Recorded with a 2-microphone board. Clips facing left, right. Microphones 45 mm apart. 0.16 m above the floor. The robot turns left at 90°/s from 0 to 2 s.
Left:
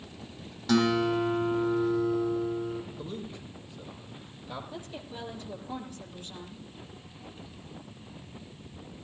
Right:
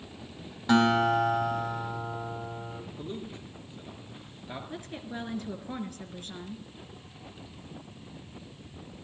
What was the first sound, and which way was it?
A guitar, 20° right.